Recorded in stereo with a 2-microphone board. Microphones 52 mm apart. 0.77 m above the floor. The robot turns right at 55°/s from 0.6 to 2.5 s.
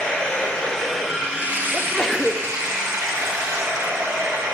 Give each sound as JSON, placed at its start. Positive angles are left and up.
{"t": 0.0, "sound": "running water", "azimuth_deg": 155, "distance_m": 1.9}
{"t": 1.7, "sound": "a sneeze", "azimuth_deg": 145, "distance_m": 0.6}